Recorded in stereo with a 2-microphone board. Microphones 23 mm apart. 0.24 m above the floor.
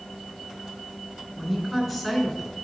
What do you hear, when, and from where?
1.4 s a woman speaking: 10° left (ahead or behind), 2.5 m; by 2.5 s 15° left (ahead or behind), 3.5 m